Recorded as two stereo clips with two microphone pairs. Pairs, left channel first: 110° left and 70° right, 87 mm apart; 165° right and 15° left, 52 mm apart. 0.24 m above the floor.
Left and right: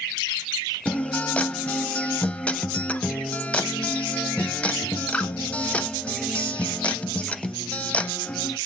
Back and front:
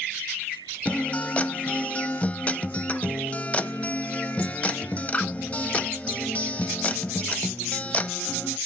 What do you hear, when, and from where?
0.8 s a guitar: 175° left, 0.6 m